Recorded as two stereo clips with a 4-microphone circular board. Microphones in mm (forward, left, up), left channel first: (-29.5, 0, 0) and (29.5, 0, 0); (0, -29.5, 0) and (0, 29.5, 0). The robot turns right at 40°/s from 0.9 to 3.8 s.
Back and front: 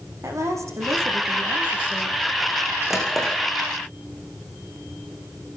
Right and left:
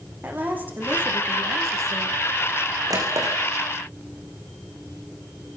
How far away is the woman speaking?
About 8.5 m.